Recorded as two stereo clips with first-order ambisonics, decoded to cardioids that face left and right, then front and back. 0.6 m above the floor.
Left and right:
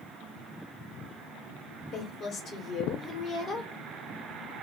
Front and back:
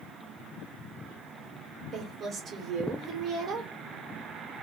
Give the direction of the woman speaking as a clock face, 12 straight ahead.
8 o'clock.